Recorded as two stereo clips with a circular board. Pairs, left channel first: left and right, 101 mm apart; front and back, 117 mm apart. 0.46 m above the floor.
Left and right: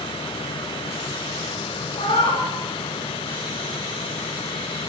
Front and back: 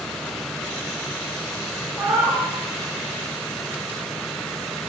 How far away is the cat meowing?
About 8.5 m.